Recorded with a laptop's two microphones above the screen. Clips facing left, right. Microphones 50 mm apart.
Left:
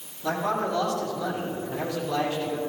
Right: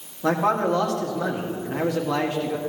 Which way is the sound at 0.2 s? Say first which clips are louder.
Right 5 dB; 65° right (ahead or behind).